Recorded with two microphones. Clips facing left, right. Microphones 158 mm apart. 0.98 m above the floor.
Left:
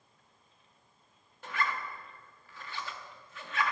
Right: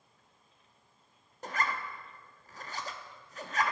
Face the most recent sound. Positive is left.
turn(degrees=-40)  # may be behind; listen again after turning